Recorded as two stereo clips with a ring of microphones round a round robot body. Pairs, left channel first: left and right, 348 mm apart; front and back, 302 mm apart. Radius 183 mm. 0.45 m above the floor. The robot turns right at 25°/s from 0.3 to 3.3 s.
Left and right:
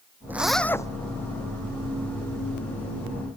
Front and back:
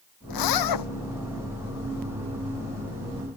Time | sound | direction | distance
0.3 | a zipper | 5° right | ?